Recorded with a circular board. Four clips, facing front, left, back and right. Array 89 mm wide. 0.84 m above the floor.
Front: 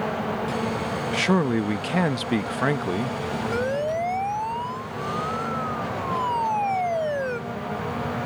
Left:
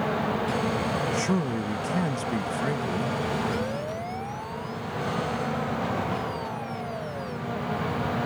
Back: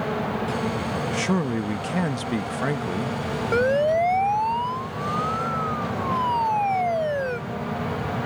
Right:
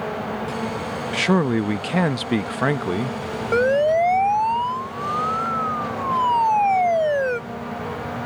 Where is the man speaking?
70° right.